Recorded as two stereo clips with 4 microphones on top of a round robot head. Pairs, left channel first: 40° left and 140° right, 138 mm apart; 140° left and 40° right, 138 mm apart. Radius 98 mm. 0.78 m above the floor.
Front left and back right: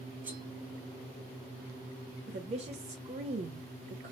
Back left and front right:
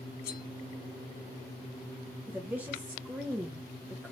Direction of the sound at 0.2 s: 145° left.